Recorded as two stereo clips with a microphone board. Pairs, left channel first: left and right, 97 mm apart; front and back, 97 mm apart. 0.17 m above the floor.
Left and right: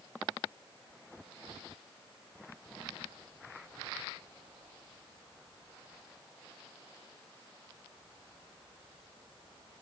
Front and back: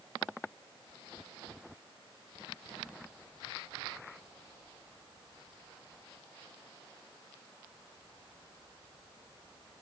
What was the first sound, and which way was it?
Only background noise.